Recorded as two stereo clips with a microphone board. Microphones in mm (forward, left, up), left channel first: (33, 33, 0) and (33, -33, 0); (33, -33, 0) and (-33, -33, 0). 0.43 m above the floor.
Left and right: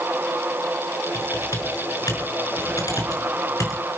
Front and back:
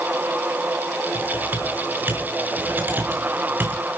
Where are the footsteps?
No footsteps in this recording.